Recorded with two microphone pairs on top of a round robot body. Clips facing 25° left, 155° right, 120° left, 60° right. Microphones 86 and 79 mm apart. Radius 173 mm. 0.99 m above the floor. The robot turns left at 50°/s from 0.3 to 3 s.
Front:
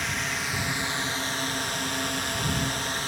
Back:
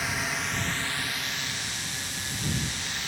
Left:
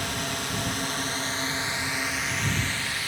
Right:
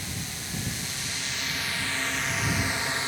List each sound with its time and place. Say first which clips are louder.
0.0 s a drone: even, left 7 dB; 120° left; by 3.1 s 15° right